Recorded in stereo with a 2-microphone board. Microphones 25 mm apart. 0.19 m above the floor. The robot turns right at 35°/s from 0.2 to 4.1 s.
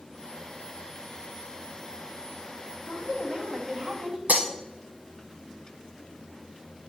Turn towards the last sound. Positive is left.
turn(degrees=-80)